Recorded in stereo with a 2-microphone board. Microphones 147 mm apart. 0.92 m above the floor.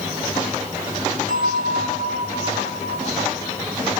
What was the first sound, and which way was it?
A bell, 80° left.